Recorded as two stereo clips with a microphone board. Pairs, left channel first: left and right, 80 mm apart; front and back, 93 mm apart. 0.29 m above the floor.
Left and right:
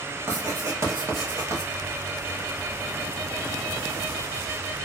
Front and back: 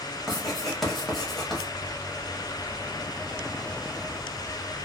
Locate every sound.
0.3 s writing: 85° right, 1.0 m